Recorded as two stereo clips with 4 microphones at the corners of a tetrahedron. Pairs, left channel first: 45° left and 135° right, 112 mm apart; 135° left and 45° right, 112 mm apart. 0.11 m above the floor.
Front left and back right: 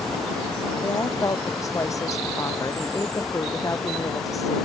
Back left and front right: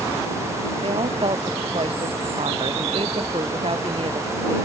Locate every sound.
0.8 s a woman speaking: 15° right